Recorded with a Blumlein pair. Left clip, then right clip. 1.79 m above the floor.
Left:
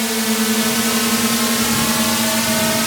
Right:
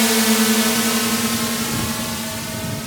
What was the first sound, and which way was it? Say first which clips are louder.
A drone: right 2 dB; 10° right.